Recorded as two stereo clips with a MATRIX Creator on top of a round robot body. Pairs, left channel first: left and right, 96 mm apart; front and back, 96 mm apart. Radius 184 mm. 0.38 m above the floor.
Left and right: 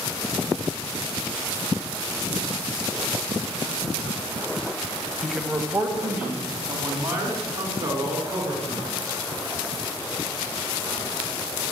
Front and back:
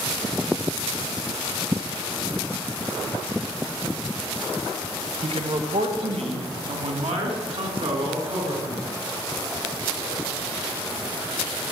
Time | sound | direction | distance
5.2 | a man speaking | straight behind | 2 m